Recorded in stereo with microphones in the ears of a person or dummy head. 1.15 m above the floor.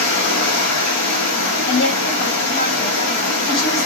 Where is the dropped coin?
No dropped coin in this recording.